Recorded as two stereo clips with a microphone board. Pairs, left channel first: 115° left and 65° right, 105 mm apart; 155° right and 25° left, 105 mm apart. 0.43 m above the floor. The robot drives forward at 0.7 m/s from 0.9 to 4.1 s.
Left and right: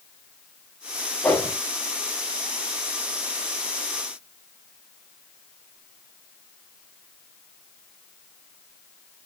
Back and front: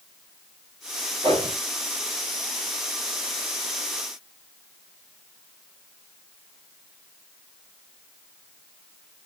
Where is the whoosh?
35° left, 4.5 m; by 1.6 s 40° left, 4.5 m.